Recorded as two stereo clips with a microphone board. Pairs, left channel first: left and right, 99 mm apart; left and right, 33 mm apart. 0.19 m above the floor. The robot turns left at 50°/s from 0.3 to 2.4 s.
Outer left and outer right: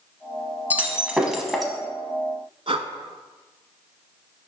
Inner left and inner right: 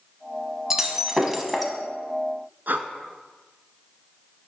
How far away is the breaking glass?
About 0.8 m.